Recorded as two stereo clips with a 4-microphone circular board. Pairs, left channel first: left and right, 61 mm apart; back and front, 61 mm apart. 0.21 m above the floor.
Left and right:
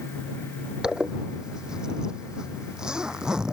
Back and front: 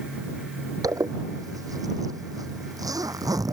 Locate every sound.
0.8 s a zipper: 10° right